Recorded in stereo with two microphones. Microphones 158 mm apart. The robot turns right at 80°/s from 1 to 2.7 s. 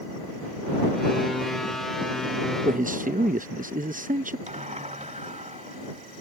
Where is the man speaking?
60° right (ahead or behind).